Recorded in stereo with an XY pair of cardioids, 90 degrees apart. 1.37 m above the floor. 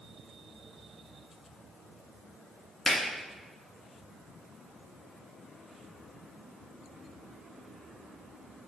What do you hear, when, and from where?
2.9 s a finger snap: 30° left, 1.4 m